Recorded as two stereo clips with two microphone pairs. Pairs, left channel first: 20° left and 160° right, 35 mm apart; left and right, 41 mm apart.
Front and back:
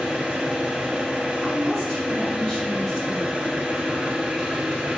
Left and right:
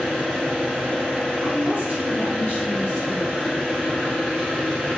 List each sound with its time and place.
0.0 s an engine running: 155° left, 1.4 m
1.4 s a woman speaking: 90° left, 2.5 m